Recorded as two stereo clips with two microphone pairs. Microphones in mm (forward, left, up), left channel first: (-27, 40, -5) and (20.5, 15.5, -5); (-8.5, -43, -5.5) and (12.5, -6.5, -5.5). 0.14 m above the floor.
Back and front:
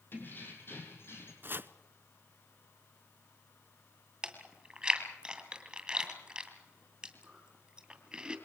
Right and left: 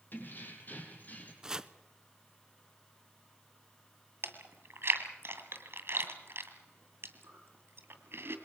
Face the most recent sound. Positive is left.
turn(degrees=50)